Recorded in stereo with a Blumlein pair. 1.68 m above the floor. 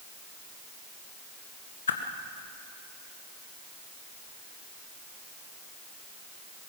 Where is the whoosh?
65° left, 1.7 m.